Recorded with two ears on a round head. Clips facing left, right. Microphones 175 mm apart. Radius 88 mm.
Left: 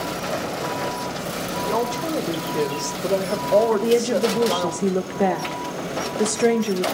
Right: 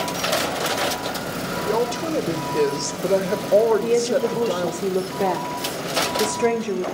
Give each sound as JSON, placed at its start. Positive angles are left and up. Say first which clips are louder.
{"t": 1.6, "sound": "a woman speaking", "louder": "right 2 dB", "side_deg": -20, "distance_m": 1.1}
{"t": 3.7, "sound": "a woman speaking", "louder": "even", "side_deg": 5, "distance_m": 0.8}